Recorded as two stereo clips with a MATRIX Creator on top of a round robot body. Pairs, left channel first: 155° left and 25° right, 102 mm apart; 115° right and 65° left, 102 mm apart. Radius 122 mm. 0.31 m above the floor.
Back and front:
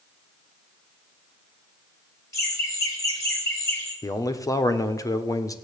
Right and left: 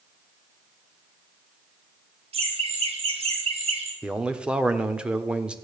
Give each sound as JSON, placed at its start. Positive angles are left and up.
{"t": 2.3, "sound": "laughter", "azimuth_deg": 95, "distance_m": 5.0}
{"t": 4.0, "sound": "a man speaking", "azimuth_deg": 140, "distance_m": 1.4}